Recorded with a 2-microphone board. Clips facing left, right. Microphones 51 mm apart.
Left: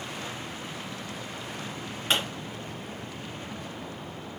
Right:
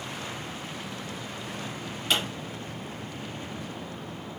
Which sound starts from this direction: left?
A pop, at 2.1 s.